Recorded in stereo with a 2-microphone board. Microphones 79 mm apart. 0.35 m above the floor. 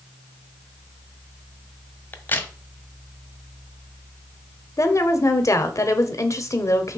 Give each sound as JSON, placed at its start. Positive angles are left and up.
{"t": 2.1, "sound": "a crack", "side_deg": 25, "distance_m": 1.1}
{"t": 4.8, "sound": "a woman speaking", "side_deg": 40, "distance_m": 1.1}